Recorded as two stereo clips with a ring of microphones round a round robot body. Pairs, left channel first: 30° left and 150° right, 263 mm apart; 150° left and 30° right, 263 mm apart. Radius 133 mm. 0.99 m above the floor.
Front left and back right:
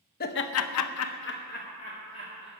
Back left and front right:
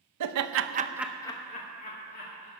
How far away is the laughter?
About 0.9 m.